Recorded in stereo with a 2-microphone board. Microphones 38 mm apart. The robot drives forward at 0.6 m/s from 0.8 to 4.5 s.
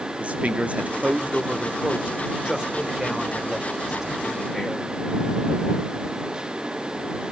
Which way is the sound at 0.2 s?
35° right (ahead or behind).